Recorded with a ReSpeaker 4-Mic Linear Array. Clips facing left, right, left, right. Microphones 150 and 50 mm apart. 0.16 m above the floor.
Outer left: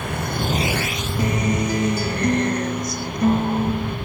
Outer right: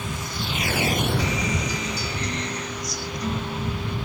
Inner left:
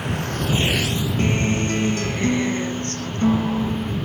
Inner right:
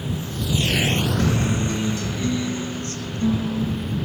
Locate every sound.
0.0 s a vehicle: 70° left (ahead or behind); by 4.1 s 85° right
1.2 s a guitar: 55° left (ahead or behind)